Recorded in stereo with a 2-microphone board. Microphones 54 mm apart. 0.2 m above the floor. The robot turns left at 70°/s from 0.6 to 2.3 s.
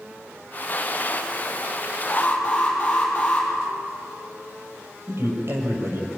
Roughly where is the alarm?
Centre.